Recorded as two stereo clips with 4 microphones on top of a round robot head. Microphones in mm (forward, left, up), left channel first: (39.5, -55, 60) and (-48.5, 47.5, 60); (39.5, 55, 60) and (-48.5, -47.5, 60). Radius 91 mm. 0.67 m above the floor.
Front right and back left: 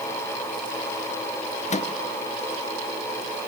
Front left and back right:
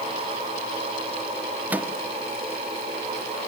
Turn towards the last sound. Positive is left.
turn(degrees=-55)